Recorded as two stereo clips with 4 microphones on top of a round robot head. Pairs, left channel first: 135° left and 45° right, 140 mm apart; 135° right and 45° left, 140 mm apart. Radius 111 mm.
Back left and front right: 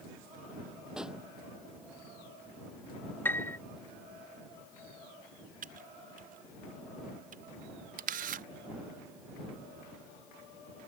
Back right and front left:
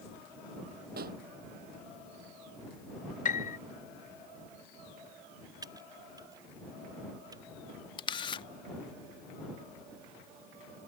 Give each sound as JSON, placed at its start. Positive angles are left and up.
{"t": 1.0, "sound": "a pop", "azimuth_deg": 40}
{"t": 3.2, "sound": "a piano", "azimuth_deg": -150}
{"t": 5.6, "sound": "typing on a keyboard", "azimuth_deg": -20}
{"t": 8.0, "sound": "a camera shutter", "azimuth_deg": -80}